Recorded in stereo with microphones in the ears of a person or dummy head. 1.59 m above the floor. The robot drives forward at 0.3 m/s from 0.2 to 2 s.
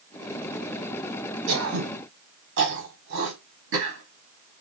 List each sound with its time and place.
1.5 s throat clearing: 75° right (ahead or behind), 1.1 m; by 4.6 s 70° right (ahead or behind), 1.1 m